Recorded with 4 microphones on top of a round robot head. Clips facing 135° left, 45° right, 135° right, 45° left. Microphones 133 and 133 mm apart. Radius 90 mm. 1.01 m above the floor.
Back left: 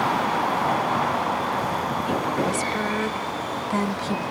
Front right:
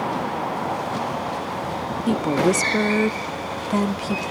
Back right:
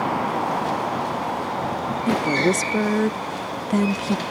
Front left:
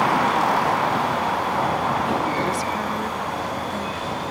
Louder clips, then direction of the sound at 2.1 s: Front right 7 dB, back right 3 dB; 85° right.